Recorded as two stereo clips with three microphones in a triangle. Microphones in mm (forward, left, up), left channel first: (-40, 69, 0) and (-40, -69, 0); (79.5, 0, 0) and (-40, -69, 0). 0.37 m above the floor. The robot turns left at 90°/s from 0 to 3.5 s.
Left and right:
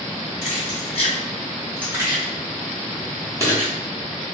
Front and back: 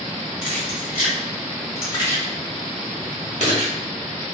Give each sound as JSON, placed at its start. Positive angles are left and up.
{"t": 0.4, "sound": "keys jangling", "azimuth_deg": 110, "distance_m": 1.6}